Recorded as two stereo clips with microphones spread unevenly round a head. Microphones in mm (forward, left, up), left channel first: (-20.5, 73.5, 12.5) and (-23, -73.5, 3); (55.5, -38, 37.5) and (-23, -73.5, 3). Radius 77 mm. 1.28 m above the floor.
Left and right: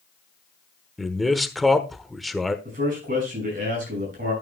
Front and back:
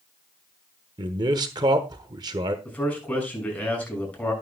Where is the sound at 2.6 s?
50° right, 6 m.